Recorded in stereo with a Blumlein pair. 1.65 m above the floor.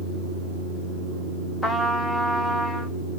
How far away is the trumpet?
About 1.1 m.